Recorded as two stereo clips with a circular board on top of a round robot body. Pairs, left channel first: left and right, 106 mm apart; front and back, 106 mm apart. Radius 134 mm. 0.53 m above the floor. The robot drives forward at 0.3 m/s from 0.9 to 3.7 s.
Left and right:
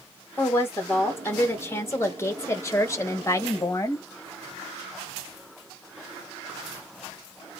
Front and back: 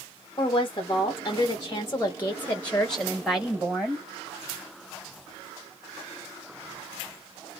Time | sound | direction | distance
0.4 | a woman speaking | 25° left | 1.2 m